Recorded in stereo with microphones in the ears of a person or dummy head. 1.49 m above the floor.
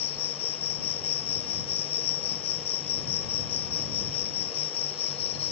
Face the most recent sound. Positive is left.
turn(degrees=35)  # may be behind; listen again after turning